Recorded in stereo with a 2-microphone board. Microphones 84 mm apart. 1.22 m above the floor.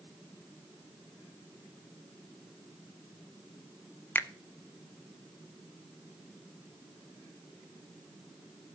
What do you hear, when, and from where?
4.2 s a finger snap: 25° left (ahead or behind), 0.7 m